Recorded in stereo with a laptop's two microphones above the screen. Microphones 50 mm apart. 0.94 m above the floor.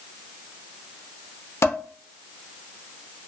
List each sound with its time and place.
1.6 s dishes clattering: 65° left (ahead or behind), 0.6 m